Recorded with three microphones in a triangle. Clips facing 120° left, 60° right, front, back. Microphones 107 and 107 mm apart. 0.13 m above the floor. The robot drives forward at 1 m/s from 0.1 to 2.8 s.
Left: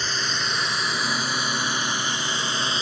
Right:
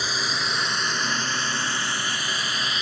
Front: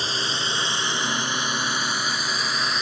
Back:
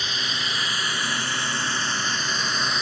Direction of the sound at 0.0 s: 20° left.